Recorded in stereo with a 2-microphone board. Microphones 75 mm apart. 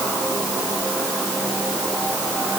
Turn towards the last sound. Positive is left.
No sound to turn to.